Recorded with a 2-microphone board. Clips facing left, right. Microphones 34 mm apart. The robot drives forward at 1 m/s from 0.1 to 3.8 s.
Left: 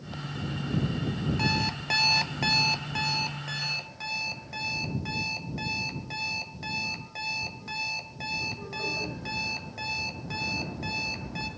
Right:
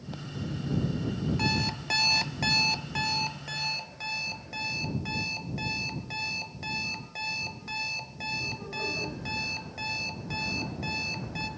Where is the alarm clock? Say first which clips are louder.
Left 2 dB; 5° left (ahead or behind), 1.0 m.